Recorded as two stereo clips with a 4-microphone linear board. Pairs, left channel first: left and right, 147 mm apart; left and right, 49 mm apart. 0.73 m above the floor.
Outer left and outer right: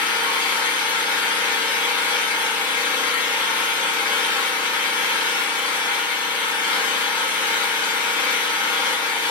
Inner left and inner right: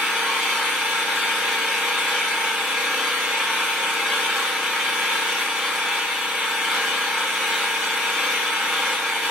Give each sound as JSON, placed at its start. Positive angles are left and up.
{"t": 0.0, "sound": "an engine running", "side_deg": -10, "distance_m": 0.9}